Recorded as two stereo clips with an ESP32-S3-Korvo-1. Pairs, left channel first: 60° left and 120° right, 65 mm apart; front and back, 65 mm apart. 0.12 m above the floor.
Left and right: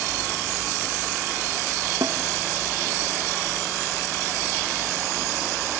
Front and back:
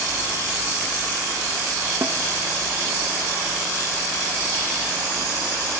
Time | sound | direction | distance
2.0 | a snare drum | 130° right | 1.8 m